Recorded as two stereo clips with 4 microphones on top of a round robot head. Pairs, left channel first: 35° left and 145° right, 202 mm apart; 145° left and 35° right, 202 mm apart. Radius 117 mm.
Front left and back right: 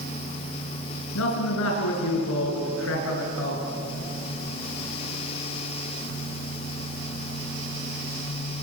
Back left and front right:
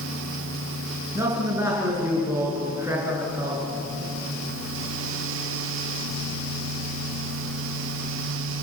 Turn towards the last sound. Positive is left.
turn(degrees=40)